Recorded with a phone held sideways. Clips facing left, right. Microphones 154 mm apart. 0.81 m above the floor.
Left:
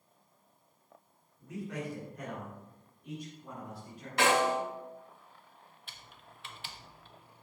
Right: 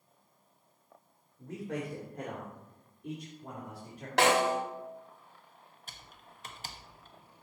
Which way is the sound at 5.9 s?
40° right (ahead or behind).